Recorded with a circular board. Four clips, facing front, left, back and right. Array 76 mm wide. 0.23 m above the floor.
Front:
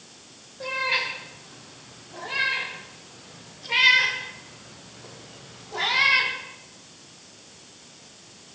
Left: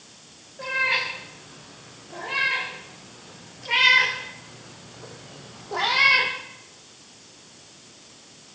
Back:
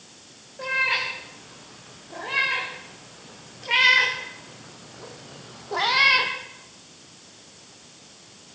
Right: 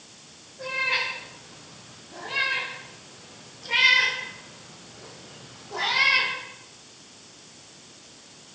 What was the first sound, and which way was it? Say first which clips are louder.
A cat meowing: left 3 dB, back 2 dB; 150° left.